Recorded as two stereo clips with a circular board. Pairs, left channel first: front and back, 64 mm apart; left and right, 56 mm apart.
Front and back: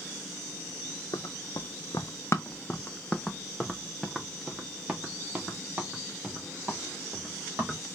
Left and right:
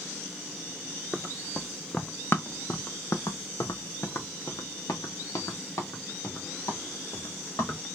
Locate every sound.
1.1 s running footsteps: straight ahead, 1.0 m; by 7.8 s 115° left, 3 m